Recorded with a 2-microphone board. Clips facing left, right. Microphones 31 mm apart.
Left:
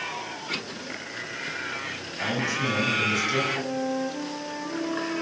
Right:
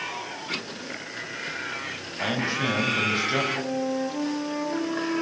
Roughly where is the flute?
Centre.